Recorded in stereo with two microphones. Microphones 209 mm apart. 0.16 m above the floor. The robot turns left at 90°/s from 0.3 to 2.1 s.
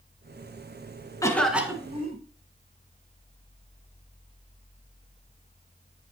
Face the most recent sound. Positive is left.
turn(degrees=-55)